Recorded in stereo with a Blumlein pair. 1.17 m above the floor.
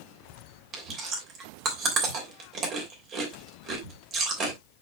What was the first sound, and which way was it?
Chewing, 30° right.